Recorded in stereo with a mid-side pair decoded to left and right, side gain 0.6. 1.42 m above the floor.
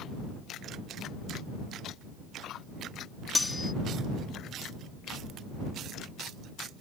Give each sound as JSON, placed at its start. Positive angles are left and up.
{"t": 3.4, "sound": "cutlery clinking", "azimuth_deg": 15}